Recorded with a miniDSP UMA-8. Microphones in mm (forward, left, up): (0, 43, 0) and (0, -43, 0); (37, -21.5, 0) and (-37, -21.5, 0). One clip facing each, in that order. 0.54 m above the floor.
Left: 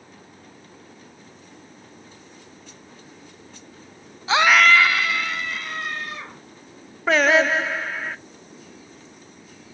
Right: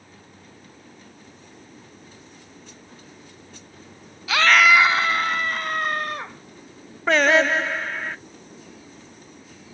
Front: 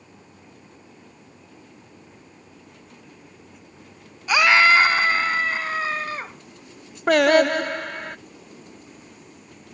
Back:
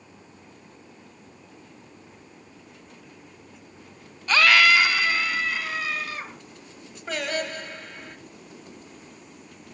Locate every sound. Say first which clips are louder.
4.3 s a scream: left 1 dB, front 2 dB; 70° left, 0.7 m; by 6.3 s 55° right, 2.5 m
7.1 s singing: even, front 14 dB; straight ahead, 0.5 m